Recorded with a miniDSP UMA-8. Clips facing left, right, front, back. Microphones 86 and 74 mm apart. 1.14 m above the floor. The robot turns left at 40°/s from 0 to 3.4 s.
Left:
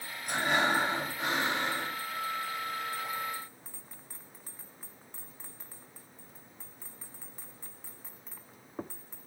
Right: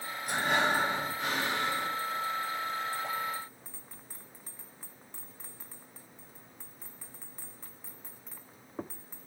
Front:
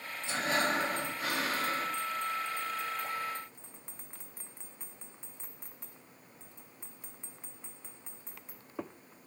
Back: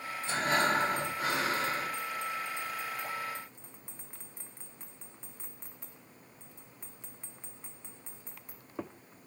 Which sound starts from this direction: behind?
Breathing, at 0.3 s.